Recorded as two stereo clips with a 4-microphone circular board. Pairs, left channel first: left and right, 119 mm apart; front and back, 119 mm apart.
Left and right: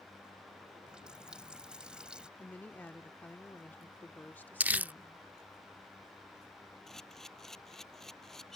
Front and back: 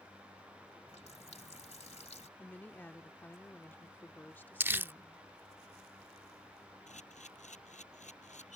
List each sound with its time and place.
0.9 s a running tap: 10° right
2.4 s a woman speaking: 45° left
4.6 s crumpling: 140° right
6.9 s a camera shutter: 5° left